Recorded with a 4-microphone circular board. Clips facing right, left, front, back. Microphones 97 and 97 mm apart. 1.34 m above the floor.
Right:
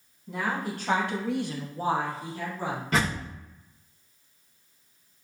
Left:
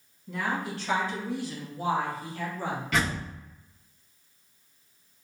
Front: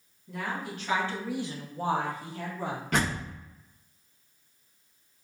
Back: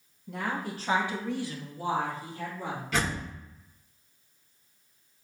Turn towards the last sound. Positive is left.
turn(degrees=-40)